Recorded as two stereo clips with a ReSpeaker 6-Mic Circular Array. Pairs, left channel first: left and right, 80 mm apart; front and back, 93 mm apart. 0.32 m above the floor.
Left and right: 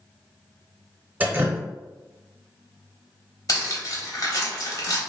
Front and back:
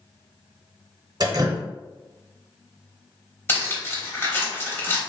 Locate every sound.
1.2 s dripping: 150° right, 0.6 m
3.5 s cutlery clinking: 60° left, 0.9 m